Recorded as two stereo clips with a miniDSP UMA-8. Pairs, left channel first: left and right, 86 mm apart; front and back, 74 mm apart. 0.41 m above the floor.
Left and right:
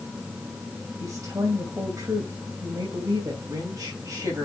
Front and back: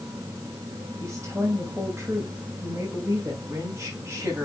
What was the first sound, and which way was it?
A woman speaking, 135° right.